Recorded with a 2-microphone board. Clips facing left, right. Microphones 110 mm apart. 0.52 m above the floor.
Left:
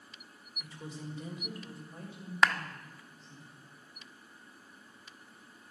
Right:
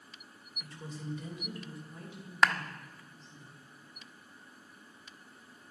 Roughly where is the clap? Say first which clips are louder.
Even; centre.